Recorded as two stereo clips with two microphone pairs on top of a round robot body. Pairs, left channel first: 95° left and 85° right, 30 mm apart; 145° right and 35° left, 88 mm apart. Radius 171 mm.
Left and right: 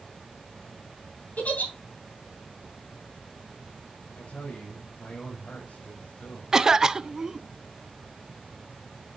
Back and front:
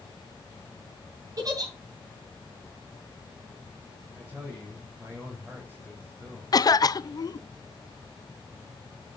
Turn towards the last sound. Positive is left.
turn(degrees=-150)